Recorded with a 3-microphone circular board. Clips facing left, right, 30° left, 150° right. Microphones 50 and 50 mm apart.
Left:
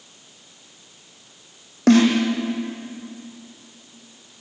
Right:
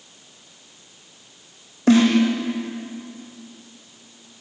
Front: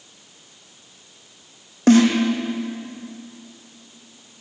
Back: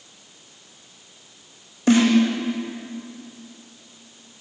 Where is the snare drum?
65° left, 5.5 m.